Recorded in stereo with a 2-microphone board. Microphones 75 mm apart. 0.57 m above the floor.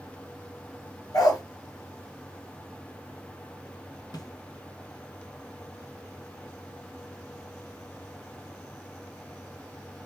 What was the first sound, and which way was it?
A dog barking, 65° left (ahead or behind).